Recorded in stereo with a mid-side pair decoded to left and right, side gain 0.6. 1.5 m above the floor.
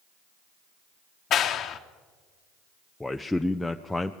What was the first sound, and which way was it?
A clap, 50° left.